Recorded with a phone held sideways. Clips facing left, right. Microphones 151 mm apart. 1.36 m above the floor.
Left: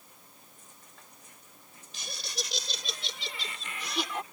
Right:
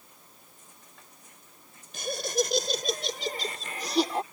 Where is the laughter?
50° right (ahead or behind); by 4.2 s 35° right (ahead or behind).